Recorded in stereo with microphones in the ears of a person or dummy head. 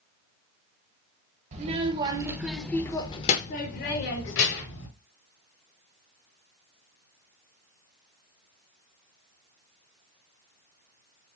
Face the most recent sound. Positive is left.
turn(degrees=75)  # may be behind; listen again after turning